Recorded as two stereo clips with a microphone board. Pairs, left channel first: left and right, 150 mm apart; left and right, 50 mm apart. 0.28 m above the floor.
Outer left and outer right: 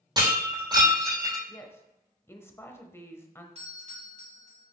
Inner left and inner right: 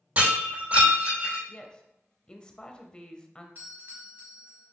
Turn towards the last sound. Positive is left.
turn(degrees=-45)  # may be behind; listen again after turning